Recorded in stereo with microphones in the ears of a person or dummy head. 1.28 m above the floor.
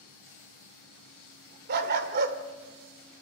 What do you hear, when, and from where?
1.7 s a dog barking: 55° right (ahead or behind), 1.7 m